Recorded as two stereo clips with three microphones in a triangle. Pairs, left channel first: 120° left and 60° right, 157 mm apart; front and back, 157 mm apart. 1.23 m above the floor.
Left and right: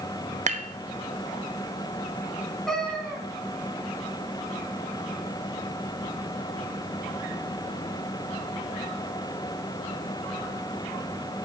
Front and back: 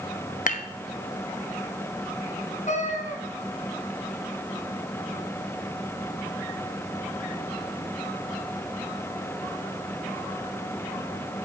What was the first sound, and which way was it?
Dishes clattering, 25° right.